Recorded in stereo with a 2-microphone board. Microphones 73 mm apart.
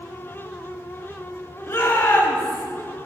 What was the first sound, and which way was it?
A shout, 35° left (ahead or behind).